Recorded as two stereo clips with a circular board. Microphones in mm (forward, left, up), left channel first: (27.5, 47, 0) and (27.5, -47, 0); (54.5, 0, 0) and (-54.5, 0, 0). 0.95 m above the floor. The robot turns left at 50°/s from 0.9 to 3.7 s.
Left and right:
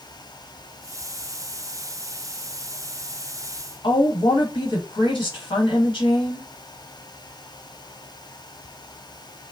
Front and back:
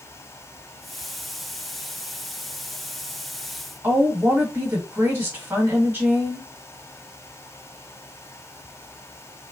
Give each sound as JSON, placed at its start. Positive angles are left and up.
{"t": 3.8, "sound": "a woman speaking", "azimuth_deg": 110, "distance_m": 1.4}